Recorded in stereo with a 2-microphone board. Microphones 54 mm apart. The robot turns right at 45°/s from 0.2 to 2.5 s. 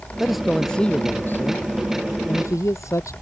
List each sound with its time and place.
0.2 s a man speaking: 10° right; by 3.1 s 95° left